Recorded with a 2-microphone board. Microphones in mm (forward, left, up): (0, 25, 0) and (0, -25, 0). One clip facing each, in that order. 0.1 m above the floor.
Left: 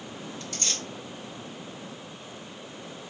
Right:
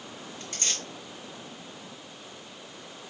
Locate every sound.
0.4 s tearing paper: 45° right (ahead or behind), 2 m